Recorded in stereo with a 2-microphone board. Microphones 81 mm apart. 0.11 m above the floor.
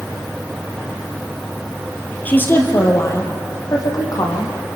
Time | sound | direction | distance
2.2 | a woman speaking | 20° left (ahead or behind) | 2.5 m